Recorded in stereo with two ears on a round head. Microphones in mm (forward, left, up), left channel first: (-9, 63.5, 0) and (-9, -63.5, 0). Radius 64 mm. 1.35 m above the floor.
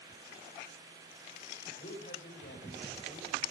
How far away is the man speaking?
About 5.5 m.